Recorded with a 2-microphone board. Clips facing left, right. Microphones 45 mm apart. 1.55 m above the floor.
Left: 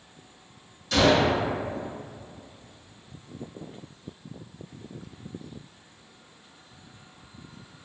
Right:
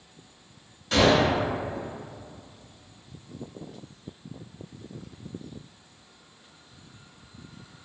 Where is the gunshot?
25° right (ahead or behind), 1.3 m.